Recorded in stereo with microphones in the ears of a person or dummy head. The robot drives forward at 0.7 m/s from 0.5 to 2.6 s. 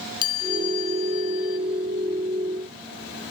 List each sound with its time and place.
0.2 s a chime: 25° left (ahead or behind), 1.0 m; by 1.6 s 45° left (ahead or behind), 0.6 m